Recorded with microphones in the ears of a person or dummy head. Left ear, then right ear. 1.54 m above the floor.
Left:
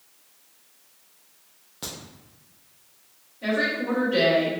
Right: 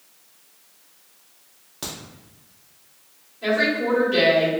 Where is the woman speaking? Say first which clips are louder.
Right 4 dB; 15° left (ahead or behind), 1.8 m.